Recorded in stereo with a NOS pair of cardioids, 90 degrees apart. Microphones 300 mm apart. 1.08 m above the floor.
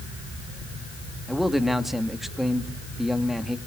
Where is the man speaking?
Straight ahead, 1.9 m.